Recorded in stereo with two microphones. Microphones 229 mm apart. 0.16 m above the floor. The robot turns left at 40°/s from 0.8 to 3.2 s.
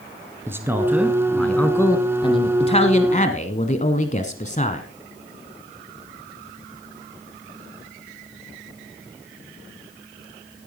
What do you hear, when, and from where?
0.5 s a man speaking: 160° right, 1.2 m; by 4.9 s 105° left, 1.2 m